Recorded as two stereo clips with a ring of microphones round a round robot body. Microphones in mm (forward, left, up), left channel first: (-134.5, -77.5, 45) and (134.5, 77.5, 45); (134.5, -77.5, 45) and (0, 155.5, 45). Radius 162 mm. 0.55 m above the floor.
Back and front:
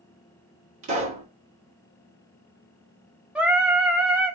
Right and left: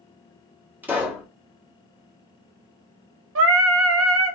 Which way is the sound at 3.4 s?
115° left.